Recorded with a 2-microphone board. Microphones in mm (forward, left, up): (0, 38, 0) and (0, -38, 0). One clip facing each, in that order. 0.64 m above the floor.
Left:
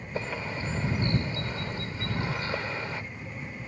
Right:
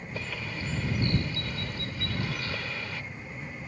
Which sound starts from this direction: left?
A bird, at 0.1 s.